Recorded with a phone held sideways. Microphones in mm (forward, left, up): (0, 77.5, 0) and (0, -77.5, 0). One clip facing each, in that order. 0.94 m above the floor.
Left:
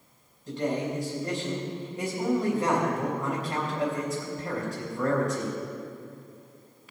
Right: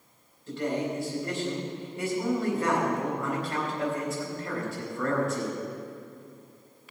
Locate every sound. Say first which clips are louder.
0.5 s a man speaking: left 1 dB; 20° left (ahead or behind), 4 m